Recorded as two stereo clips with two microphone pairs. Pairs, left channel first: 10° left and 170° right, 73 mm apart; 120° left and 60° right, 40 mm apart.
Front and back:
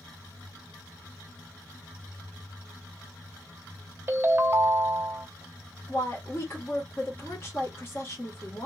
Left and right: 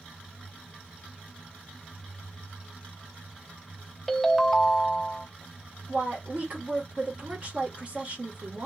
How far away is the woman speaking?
About 1.3 m.